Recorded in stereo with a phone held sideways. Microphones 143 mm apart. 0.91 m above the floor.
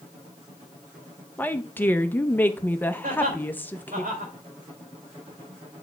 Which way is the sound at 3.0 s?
85° right.